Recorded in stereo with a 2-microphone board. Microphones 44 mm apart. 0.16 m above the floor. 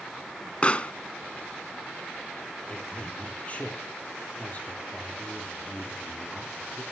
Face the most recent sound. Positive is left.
turn(degrees=30)  # may be behind; listen again after turning